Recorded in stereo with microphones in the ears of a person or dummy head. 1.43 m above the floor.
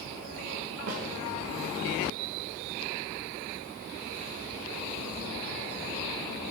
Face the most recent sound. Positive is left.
turn(degrees=-70)  # may be behind; listen again after turning